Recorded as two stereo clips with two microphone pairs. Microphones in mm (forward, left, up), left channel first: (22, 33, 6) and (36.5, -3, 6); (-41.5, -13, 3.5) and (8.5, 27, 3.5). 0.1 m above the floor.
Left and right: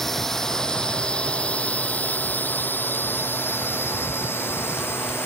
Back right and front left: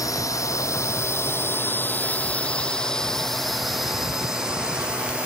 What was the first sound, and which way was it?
A drone, 165° right.